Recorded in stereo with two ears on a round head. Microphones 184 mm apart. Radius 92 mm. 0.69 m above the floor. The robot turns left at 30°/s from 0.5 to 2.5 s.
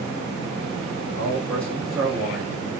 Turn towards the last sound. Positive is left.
turn(degrees=-15)